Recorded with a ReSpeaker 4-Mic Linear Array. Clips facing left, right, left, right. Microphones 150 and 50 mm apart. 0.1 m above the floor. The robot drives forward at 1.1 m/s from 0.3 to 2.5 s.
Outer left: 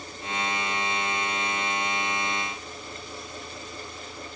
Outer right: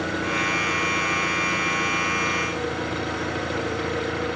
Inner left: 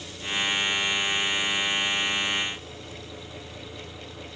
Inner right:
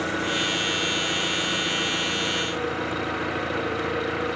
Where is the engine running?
80° right; by 4.4 s 75° right (ahead or behind).